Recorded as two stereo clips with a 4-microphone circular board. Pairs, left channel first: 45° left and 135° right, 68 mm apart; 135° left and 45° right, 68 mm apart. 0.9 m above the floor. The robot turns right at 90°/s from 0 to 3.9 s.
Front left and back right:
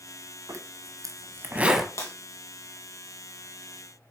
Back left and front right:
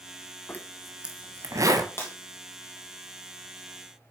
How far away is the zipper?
About 1.3 m.